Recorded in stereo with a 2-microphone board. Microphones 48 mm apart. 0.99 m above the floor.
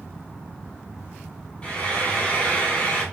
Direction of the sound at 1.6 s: 25° left (ahead or behind).